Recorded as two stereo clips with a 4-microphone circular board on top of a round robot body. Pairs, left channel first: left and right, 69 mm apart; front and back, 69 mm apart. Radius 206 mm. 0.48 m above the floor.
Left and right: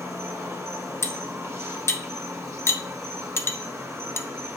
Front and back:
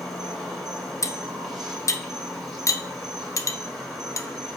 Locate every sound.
0.0 s an insect: 95° right, 2.0 m
1.0 s cutlery clinking: 40° left, 0.6 m